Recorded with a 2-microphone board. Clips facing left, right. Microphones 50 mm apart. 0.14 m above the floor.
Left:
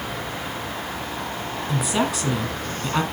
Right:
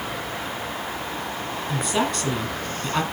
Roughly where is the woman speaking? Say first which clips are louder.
Left 1 dB; centre.